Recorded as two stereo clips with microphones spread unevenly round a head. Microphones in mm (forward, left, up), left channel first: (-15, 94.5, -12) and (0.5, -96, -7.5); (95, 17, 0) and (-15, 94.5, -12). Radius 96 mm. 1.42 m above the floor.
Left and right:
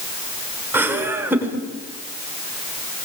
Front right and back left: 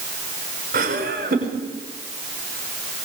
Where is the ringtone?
I don't hear a ringtone.